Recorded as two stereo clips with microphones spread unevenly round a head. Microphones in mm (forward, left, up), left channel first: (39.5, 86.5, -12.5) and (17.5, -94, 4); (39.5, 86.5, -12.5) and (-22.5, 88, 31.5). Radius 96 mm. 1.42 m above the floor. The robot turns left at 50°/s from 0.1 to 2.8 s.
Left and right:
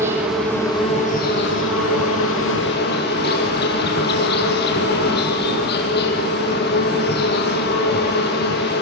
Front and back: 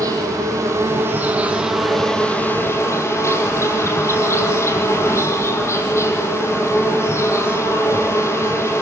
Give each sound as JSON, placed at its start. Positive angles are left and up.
{"t": 0.0, "sound": "an insect", "azimuth_deg": -175, "distance_m": 6.0}